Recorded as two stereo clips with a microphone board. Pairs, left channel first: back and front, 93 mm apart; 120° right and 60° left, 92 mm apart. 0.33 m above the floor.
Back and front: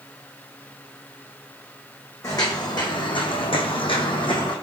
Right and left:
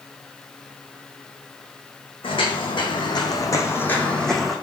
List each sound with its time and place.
2.2 s footsteps: 130° right, 1.1 m; by 4.5 s 145° left, 0.9 m